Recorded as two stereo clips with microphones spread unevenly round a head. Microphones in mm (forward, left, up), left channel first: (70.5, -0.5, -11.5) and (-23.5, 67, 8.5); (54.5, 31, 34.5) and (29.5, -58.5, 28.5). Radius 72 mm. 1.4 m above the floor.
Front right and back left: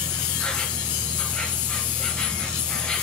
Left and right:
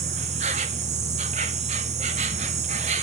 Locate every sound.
0.0 s an insect: 120° right, 0.7 m